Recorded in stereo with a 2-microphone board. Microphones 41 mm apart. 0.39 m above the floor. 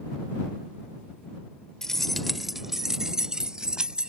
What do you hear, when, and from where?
1.8 s keys jangling: 15° left (ahead or behind); by 4.1 s 20° right (ahead or behind)